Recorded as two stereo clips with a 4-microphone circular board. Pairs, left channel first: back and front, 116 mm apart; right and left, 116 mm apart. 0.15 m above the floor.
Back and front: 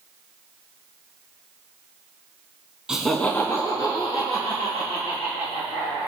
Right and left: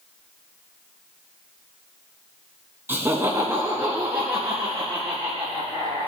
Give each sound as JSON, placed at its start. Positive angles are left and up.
{"t": 2.9, "sound": "laughter", "azimuth_deg": 65, "distance_m": 1.0}